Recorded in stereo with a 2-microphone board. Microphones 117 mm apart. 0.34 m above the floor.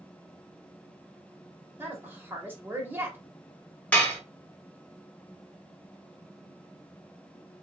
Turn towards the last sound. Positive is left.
turn(degrees=10)  # may be behind; listen again after turning